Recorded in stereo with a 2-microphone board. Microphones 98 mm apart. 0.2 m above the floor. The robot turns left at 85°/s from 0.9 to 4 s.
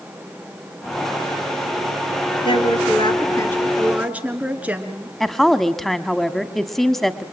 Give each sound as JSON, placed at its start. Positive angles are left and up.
{"t": 2.5, "sound": "a woman speaking", "azimuth_deg": 115, "distance_m": 3.0}
{"t": 5.2, "sound": "a woman speaking", "side_deg": 5, "distance_m": 1.2}